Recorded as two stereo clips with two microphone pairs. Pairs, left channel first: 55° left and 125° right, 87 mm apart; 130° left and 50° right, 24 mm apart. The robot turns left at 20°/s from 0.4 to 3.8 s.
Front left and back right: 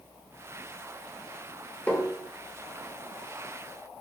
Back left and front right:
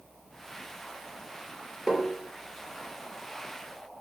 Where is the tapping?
10° right, 0.6 m; by 2.1 s 15° right, 0.6 m.